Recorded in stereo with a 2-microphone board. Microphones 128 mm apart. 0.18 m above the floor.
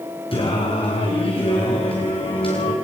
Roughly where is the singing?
Left.